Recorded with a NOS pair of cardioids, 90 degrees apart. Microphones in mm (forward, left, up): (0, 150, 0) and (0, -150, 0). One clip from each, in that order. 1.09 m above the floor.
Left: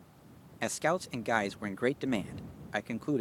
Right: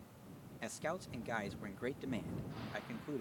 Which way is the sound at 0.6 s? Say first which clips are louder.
Left 11 dB; 50° left.